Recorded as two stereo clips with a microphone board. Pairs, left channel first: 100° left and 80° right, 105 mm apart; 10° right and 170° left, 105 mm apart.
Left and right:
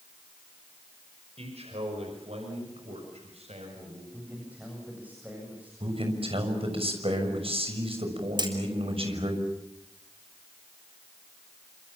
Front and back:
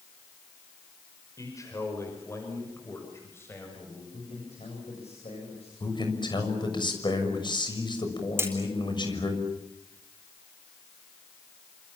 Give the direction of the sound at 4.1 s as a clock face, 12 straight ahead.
12 o'clock.